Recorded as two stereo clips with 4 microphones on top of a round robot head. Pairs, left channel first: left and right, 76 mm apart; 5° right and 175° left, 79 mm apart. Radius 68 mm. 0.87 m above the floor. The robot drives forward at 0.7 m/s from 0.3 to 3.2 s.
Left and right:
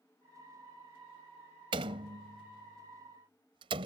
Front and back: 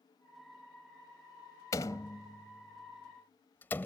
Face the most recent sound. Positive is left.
turn(degrees=-75)